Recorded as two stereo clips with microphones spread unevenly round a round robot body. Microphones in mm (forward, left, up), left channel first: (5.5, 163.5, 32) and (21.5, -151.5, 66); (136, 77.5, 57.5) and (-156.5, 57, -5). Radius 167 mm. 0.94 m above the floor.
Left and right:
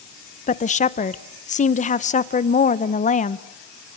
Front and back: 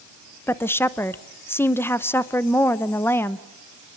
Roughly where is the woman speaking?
Left.